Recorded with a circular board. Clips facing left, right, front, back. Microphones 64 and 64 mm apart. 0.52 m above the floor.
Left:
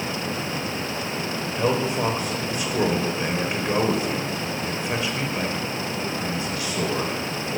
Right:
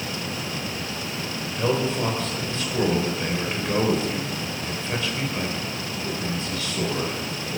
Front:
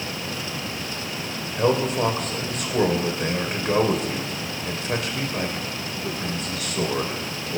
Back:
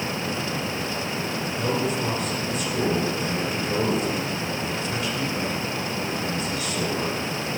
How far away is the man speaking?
About 2.5 m.